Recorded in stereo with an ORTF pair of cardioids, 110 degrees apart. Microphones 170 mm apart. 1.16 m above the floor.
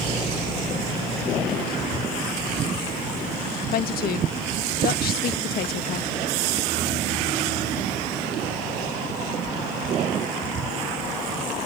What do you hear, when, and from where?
3.7 s a woman speaking: 65° left